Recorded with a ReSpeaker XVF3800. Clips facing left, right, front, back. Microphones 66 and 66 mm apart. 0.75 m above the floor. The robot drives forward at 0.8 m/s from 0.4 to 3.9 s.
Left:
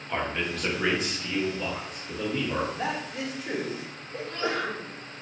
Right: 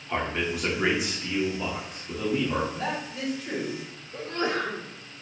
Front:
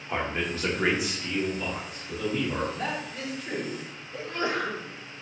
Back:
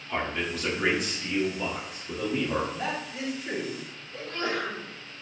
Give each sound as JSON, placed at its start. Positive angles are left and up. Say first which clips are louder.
{"t": 0.1, "sound": "a man speaking", "louder": "right 1 dB, front 1 dB", "azimuth_deg": -15, "distance_m": 1.1}
{"t": 2.7, "sound": "a man speaking", "louder": "even, even", "azimuth_deg": 95, "distance_m": 1.1}
{"t": 4.1, "sound": "a sneeze", "louder": "right 2 dB, front 2 dB", "azimuth_deg": -65, "distance_m": 1.2}